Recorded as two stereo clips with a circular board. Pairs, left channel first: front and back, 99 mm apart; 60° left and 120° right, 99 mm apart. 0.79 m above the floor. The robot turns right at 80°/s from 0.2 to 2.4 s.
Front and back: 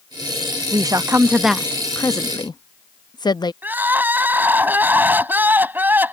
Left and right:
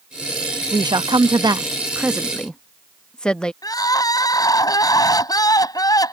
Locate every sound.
0.7 s a woman speaking: 155° right; by 3.5 s 20° right
3.6 s crying: 110° left